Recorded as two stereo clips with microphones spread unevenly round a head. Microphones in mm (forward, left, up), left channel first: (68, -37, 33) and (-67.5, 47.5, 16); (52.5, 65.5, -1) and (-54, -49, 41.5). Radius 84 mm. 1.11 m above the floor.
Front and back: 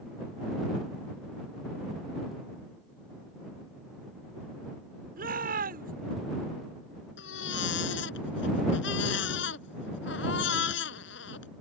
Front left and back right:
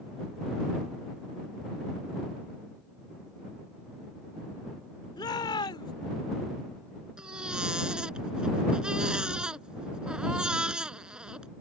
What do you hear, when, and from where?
5.2 s a shout: 115° left
7.2 s a baby crying: 50° right